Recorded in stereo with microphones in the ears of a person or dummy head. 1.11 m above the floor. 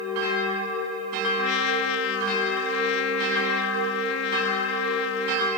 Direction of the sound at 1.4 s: 75° left (ahead or behind).